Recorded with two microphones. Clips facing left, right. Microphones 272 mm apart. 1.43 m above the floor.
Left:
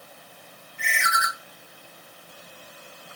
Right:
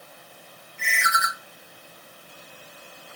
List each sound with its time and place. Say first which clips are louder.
0.8 s a ringtone: even; 30° right (ahead or behind), 2.5 m